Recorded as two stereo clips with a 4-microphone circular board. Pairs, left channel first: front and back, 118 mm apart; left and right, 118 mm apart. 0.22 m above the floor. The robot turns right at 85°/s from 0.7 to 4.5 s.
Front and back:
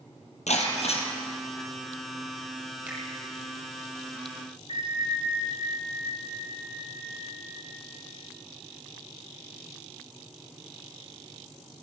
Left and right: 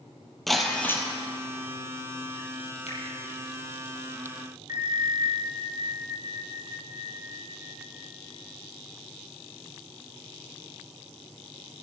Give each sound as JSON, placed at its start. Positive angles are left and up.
{"t": 0.5, "sound": "breaking glass", "azimuth_deg": 0, "distance_m": 4.0}
{"t": 2.9, "sound": "a finger snap", "azimuth_deg": 100, "distance_m": 5.5}
{"t": 4.7, "sound": "a bell", "azimuth_deg": -30, "distance_m": 6.0}